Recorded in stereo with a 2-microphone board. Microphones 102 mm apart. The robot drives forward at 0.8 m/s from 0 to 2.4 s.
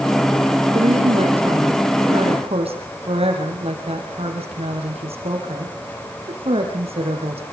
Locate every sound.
0.7 s a woman speaking: 80° right, 6.5 m; by 7.4 s 75° right (ahead or behind), 6.5 m